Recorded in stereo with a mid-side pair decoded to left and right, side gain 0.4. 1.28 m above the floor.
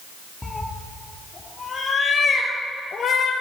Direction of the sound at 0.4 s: 20° left.